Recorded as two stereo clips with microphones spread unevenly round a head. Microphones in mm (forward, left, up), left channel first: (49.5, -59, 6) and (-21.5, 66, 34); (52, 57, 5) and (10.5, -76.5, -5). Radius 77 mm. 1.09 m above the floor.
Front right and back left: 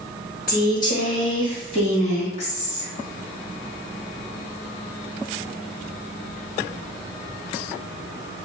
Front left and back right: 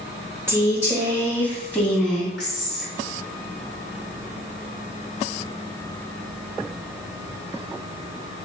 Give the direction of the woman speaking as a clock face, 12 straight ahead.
1 o'clock.